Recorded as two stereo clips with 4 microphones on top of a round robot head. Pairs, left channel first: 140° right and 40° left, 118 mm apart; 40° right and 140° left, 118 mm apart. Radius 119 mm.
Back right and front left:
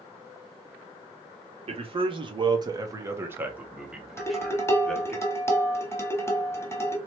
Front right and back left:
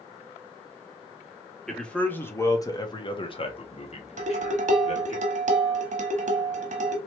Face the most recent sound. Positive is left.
turn(degrees=150)